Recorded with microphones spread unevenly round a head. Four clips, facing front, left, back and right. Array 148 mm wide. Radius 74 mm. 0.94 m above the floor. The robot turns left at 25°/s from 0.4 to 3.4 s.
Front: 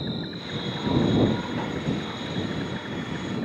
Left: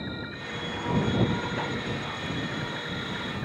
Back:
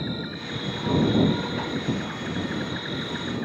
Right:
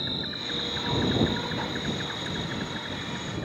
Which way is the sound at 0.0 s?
115° right.